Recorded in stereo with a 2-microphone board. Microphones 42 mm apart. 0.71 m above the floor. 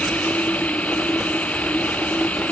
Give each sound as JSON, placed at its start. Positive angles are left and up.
{"t": 0.0, "sound": "running water", "side_deg": 35}